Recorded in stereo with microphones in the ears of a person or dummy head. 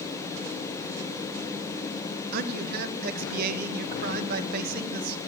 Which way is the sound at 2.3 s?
50° right (ahead or behind).